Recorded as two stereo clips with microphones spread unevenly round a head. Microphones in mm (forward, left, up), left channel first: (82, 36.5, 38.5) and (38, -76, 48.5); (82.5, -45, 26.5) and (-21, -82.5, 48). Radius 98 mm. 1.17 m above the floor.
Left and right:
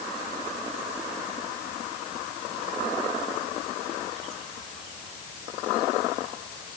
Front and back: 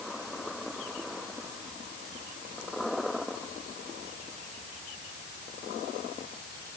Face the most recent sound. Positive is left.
No sound to turn to.